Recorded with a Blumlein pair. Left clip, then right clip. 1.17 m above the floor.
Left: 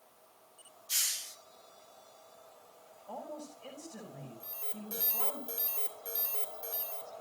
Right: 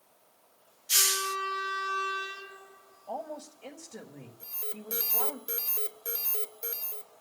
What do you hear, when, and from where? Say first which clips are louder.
0.9 s a hiss: right 9 dB; 25° right, 0.9 m
3.1 s a woman speaking: right 5 dB; 20° right, 5.5 m
4.4 s an alarm: right 4 dB; 20° right, 4 m